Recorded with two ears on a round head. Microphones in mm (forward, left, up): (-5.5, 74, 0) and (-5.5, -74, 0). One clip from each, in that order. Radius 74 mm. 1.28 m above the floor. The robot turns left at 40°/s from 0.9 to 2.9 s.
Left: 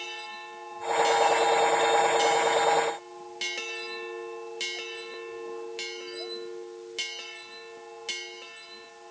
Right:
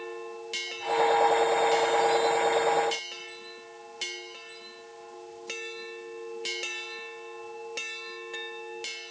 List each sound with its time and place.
Only background noise.